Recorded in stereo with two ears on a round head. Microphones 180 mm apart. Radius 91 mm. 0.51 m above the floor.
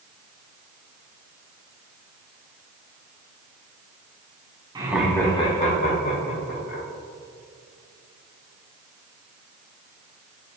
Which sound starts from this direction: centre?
Laughter, at 4.8 s.